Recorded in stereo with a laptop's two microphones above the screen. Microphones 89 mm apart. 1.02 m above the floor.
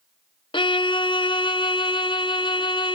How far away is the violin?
About 0.6 m.